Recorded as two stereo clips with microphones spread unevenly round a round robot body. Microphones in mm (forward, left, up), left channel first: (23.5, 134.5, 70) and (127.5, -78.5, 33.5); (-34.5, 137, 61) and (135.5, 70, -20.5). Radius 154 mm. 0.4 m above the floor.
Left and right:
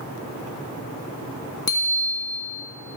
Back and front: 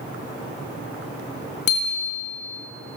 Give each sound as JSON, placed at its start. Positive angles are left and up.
{"t": 1.7, "sound": "a bicycle bell", "azimuth_deg": -165, "distance_m": 3.0}